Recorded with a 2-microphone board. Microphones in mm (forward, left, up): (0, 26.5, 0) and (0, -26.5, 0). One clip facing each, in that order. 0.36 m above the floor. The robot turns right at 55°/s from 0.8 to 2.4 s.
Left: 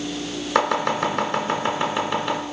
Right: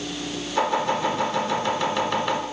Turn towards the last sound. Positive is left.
turn(degrees=-5)  # may be behind; listen again after turning